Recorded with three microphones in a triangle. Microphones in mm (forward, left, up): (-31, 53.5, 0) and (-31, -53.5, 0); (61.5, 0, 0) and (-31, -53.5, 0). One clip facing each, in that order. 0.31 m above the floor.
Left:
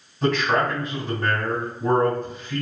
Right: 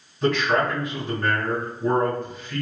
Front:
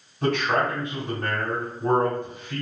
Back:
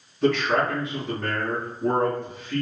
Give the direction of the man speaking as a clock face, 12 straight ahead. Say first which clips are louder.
Even, back 2 dB; 10 o'clock.